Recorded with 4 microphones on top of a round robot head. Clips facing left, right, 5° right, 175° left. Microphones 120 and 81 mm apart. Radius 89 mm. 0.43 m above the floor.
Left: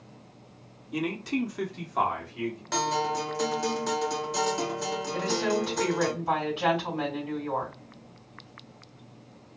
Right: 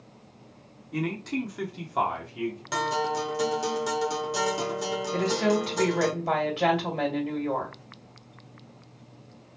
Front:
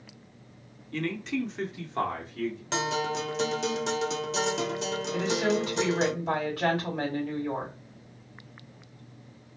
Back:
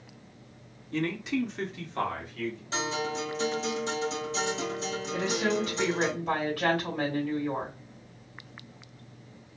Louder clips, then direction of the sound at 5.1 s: Right 3 dB, front 1 dB; 65° right.